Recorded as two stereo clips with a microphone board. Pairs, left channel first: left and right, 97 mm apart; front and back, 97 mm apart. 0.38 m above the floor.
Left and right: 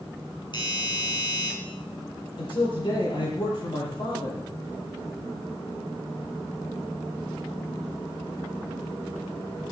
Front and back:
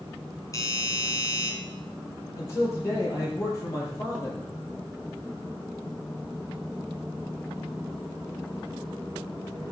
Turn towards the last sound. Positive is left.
turn(degrees=60)